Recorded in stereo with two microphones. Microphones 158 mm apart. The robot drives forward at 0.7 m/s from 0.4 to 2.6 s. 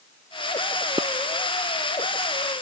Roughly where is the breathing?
I don't hear breathing.